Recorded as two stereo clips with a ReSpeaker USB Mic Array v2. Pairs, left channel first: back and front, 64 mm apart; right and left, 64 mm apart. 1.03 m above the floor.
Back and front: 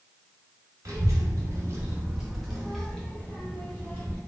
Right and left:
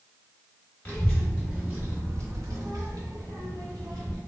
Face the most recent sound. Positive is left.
turn(degrees=115)